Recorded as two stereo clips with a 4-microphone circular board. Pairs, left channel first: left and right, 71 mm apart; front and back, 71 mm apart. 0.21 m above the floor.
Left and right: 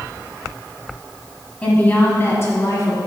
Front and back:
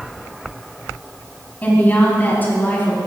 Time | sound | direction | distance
1.6 | a woman speaking | 40° left | 1.6 m